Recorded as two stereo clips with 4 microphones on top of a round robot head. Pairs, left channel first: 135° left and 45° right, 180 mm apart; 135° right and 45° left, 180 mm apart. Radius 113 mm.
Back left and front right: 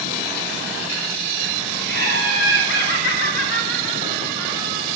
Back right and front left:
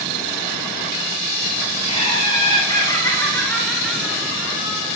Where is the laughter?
165° left, 5 m; by 4.9 s 110° left, 3.5 m.